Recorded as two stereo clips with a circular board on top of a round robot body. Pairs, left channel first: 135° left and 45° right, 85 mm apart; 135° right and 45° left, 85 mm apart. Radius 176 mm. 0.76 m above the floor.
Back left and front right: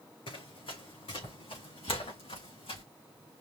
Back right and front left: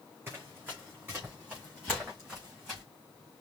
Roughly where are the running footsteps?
Behind left.